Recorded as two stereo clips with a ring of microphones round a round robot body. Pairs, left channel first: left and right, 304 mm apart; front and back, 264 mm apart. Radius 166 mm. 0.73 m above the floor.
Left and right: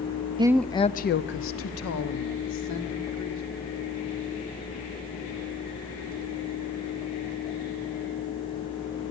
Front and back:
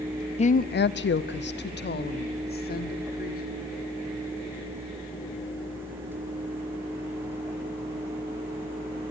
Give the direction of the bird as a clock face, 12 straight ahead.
I don't hear a bird.